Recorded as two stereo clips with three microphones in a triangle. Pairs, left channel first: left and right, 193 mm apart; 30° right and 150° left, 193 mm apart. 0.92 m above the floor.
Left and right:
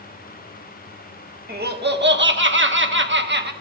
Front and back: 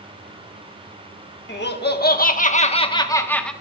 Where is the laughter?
55° right, 1.7 m; by 3.5 s 115° right, 1.4 m.